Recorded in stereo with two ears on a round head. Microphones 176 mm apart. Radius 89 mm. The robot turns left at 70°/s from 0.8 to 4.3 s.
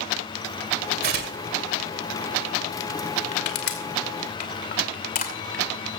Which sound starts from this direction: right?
Tearing paper, at 1.0 s.